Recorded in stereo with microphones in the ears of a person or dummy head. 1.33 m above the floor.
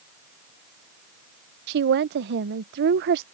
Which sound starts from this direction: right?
A woman speaking, at 1.7 s.